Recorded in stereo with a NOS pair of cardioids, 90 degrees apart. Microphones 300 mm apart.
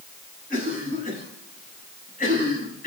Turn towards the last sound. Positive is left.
turn(degrees=30)